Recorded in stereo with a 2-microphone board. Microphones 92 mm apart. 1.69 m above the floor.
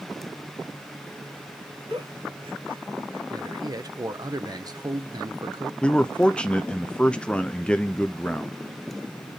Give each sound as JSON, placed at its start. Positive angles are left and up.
{"t": 1.9, "sound": "a giggle", "side_deg": -75, "distance_m": 5.0}
{"t": 3.3, "sound": "a man speaking", "side_deg": -45, "distance_m": 0.8}
{"t": 5.8, "sound": "a man speaking", "side_deg": 10, "distance_m": 0.6}